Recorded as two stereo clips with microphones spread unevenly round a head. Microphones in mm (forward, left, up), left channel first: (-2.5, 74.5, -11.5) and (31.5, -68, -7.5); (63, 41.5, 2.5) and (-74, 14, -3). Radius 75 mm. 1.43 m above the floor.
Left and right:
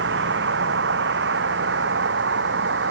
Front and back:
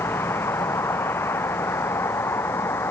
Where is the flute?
I don't hear a flute.